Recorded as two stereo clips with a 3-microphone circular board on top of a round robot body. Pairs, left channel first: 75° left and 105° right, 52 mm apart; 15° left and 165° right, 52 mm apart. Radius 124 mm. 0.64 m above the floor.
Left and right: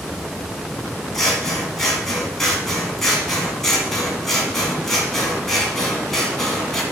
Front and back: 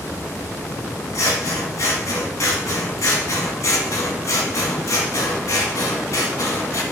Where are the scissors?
10° right, 1.7 m.